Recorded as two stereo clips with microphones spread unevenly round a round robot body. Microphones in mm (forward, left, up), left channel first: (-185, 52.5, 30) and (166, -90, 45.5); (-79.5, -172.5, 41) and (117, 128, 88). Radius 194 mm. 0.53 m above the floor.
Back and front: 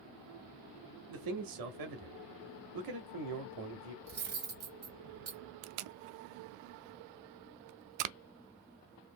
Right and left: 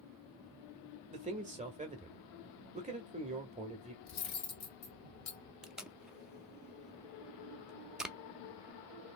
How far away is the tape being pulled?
About 0.5 m.